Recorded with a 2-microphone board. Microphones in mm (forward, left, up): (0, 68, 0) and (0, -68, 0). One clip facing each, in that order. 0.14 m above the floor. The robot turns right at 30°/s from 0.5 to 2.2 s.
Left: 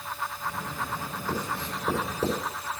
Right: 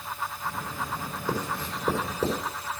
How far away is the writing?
About 6 m.